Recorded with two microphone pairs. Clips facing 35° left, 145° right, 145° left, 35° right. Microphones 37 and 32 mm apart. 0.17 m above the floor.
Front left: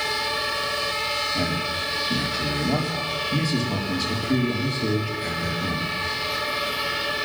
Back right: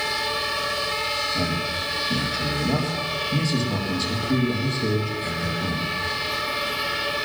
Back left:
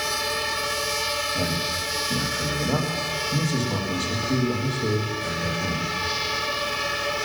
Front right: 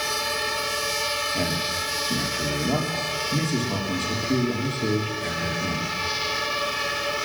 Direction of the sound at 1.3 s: 40° right.